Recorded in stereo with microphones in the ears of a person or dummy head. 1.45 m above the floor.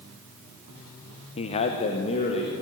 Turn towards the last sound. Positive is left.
turn(degrees=40)  # may be behind; listen again after turning